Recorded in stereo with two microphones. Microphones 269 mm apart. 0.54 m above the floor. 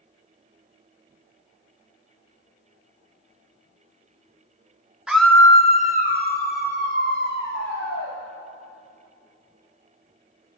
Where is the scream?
5° right (ahead or behind), 0.6 m; by 8.1 s 45° left (ahead or behind), 2 m.